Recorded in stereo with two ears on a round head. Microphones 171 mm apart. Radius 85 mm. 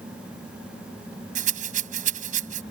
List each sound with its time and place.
1.4 s a rattle: 40° right (ahead or behind)